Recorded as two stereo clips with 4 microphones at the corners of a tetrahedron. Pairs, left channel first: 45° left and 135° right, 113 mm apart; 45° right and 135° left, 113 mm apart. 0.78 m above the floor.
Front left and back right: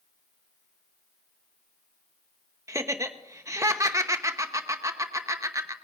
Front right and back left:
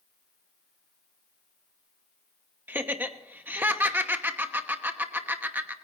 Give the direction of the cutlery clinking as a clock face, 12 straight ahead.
I don't hear cutlery clinking.